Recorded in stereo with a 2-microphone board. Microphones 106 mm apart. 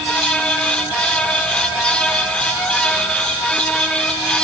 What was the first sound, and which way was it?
Only background noise.